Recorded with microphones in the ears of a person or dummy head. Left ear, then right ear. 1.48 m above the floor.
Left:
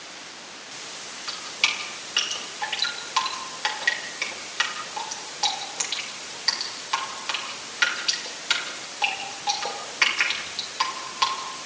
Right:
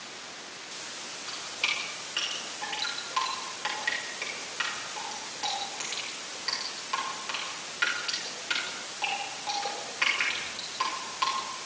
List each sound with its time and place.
1.3 s dripping: 25° left (ahead or behind), 7 m